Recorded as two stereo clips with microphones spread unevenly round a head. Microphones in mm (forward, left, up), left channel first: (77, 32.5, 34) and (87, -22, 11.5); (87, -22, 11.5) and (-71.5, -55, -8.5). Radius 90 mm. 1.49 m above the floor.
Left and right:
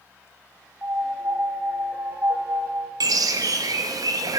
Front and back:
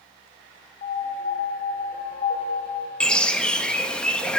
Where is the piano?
30° right, 1.2 m.